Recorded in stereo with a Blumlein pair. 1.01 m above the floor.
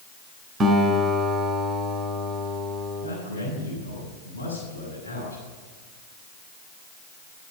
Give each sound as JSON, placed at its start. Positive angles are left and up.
{"t": 0.6, "sound": "a guitar", "azimuth_deg": -20, "distance_m": 3.5}
{"t": 3.0, "sound": "a man speaking", "azimuth_deg": 70, "distance_m": 7.0}